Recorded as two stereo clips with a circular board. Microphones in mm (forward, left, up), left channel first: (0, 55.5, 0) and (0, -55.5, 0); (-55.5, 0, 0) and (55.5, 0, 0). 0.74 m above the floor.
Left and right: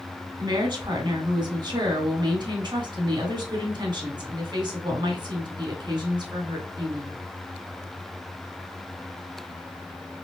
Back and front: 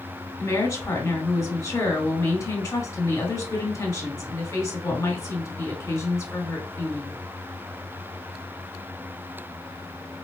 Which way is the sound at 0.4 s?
125° right.